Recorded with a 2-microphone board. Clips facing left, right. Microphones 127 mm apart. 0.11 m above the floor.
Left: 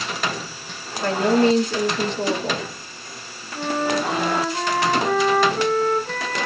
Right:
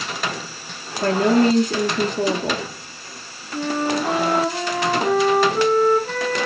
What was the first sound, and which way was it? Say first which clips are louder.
A woman speaking: right 1 dB; 45° right (ahead or behind).